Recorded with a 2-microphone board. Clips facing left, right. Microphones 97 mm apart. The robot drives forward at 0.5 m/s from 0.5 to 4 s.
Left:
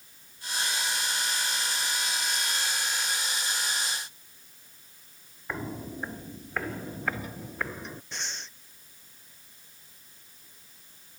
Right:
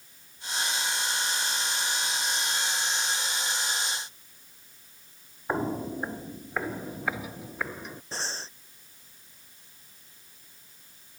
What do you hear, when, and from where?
5.5 s footsteps: 40° right (ahead or behind); by 8.0 s 5° right (ahead or behind)
8.1 s breathing: 35° right (ahead or behind)